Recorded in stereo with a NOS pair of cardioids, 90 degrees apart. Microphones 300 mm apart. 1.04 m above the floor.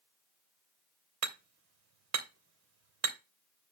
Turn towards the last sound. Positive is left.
turn(degrees=-60)